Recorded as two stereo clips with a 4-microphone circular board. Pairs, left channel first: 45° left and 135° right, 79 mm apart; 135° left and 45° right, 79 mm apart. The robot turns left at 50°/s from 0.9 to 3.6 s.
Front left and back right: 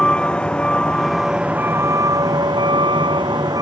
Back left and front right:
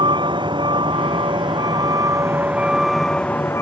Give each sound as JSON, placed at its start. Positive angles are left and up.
{"t": 0.0, "sound": "a vehicle", "azimuth_deg": -35}